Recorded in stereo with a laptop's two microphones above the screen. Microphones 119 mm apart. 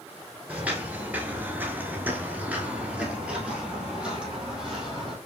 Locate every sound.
0.5 s footsteps: 15° right (ahead or behind), 1.3 m; by 5.2 s 5° right (ahead or behind), 2.5 m